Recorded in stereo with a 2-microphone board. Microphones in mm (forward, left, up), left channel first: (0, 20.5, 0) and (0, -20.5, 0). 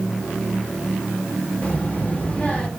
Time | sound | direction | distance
1.6 | a child speaking | 30° left (ahead or behind) | 2.5 m